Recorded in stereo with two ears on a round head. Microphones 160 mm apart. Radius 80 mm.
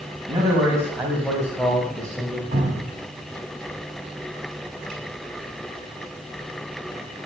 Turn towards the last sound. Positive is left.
turn(degrees=-40)  # may be behind; listen again after turning